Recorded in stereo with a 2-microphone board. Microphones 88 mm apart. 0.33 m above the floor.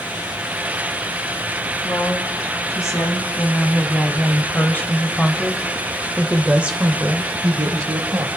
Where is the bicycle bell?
I don't hear a bicycle bell.